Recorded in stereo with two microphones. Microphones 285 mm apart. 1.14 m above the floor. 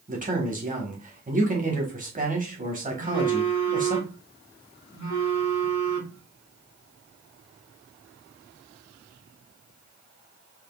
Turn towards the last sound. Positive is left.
turn(degrees=75)  # may be behind; listen again after turning